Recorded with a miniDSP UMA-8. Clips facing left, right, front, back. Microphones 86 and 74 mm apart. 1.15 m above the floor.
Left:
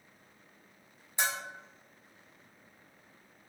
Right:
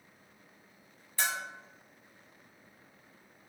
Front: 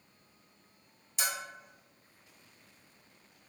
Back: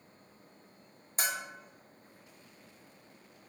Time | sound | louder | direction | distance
1.2 | a bell | even, back 1 dB | 155° left | 0.6 m